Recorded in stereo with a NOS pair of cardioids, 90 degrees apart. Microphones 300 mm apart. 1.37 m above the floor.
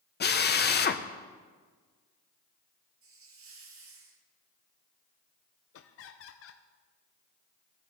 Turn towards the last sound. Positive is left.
turn(degrees=50)